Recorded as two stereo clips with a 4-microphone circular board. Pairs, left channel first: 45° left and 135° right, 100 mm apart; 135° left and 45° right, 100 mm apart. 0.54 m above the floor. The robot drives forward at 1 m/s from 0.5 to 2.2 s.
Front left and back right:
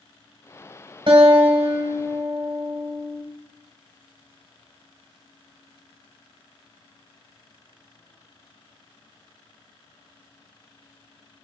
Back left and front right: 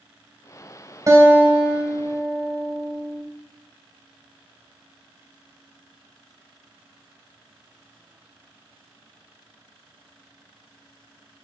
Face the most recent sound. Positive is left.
turn(degrees=-140)